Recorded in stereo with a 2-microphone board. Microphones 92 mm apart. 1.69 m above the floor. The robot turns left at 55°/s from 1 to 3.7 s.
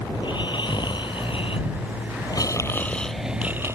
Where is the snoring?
120° left; by 3.8 s 30° right.